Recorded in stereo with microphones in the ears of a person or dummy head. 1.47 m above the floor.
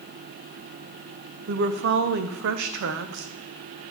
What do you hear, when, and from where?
1.5 s a woman speaking: 65° right (ahead or behind), 0.6 m